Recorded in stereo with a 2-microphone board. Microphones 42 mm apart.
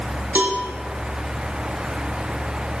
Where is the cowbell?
55° right (ahead or behind), 1.4 m.